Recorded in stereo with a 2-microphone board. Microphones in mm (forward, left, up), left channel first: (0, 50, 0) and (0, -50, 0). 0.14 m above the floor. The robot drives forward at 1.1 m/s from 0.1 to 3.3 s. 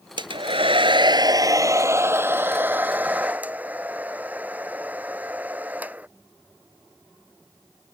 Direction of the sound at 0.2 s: 50° right (ahead or behind).